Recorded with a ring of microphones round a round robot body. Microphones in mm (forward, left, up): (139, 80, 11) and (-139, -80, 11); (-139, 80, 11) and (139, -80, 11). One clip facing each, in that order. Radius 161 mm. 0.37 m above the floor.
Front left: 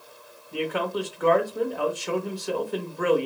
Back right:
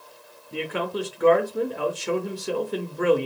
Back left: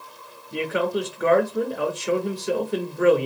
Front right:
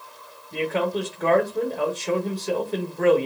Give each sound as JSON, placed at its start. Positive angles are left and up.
{"t": 0.5, "sound": "a man speaking", "azimuth_deg": -155, "distance_m": 0.8}